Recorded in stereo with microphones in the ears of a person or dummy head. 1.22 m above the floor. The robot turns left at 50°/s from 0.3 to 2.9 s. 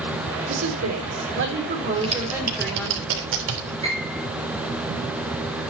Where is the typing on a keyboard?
30° right (ahead or behind), 3.5 m; by 3.7 s 75° right (ahead or behind), 3.5 m.